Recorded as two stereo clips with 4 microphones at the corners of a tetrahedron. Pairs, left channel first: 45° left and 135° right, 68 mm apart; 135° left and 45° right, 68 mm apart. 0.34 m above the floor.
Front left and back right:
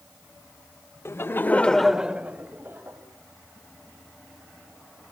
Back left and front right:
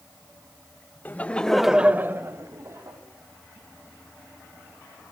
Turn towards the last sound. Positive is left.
turn(degrees=-80)